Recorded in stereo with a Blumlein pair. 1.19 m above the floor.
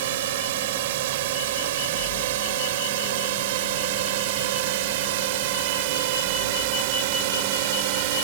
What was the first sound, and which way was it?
A drone, 55° right.